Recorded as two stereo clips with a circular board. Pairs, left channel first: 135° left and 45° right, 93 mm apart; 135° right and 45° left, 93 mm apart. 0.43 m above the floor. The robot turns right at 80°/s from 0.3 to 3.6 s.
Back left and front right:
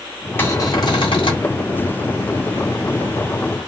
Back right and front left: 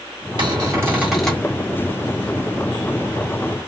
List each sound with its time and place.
0.4 s a cupboard door: 70° left, 1.5 m; by 1.5 s 160° left, 1.5 m